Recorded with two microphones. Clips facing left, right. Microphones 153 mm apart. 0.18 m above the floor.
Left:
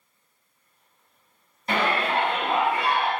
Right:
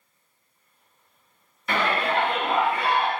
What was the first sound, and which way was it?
A shout, 35° left (ahead or behind).